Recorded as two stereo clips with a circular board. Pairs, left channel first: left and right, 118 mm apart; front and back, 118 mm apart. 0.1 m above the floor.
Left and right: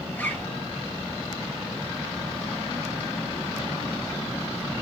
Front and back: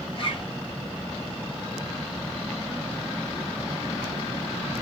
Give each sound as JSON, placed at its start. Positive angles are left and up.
{"t": 0.1, "sound": "a zipper", "azimuth_deg": 20, "distance_m": 0.7}